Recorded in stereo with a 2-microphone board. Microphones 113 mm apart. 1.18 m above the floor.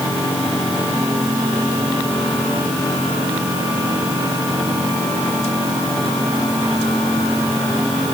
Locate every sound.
Only background noise.